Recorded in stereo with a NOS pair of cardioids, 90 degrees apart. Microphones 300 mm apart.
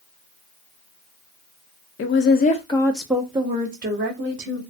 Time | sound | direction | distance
2.0 | a woman speaking | 50° left | 0.7 m